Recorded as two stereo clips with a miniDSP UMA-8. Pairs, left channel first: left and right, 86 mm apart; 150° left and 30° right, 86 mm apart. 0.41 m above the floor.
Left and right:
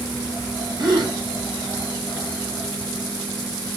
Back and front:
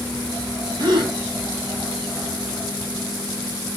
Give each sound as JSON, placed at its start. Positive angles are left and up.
{"t": 0.8, "sound": "a gasp", "azimuth_deg": -60, "distance_m": 1.5}